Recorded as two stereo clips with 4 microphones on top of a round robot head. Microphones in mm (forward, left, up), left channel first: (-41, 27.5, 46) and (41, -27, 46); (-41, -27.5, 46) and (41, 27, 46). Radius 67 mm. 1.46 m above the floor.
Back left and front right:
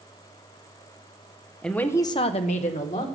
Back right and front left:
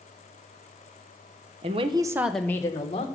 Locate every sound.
1.6 s a woman speaking: 65° left, 1.1 m; by 3.1 s 170° left, 1.3 m